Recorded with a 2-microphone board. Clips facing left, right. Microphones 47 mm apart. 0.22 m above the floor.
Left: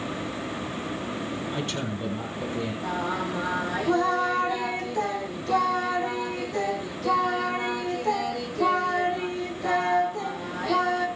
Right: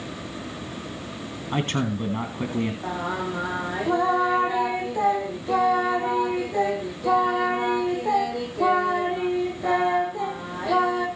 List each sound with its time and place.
1.5 s a man speaking: 45° right (ahead or behind), 2 m
2.8 s singing: 15° right (ahead or behind), 3.5 m